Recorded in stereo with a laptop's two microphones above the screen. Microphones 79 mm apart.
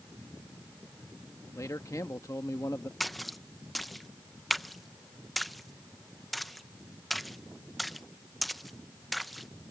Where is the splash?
Centre (ahead or behind).